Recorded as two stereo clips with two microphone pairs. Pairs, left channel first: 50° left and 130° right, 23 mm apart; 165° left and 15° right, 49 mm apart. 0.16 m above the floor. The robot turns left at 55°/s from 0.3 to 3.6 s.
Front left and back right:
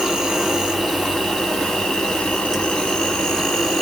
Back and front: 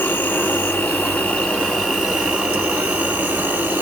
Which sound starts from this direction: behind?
An insect, at 0.0 s.